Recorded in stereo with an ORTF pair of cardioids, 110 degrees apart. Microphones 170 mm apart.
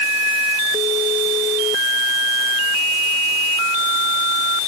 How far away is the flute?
No flute in this recording.